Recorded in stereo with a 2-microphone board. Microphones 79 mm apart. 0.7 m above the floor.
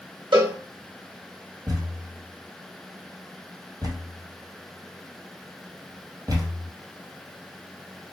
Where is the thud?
50° right (ahead or behind), 1.8 m.